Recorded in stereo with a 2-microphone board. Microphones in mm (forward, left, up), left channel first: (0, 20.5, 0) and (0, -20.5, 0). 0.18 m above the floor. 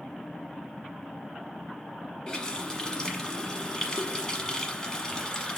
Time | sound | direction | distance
2.3 | a running tap | 20° left (ahead or behind) | 1.1 m